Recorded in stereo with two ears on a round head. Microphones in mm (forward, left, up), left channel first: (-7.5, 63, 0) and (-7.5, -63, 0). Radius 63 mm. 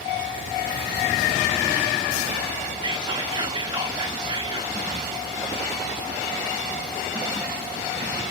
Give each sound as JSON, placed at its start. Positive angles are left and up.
{"t": 2.8, "sound": "whispering", "side_deg": -30, "distance_m": 0.6}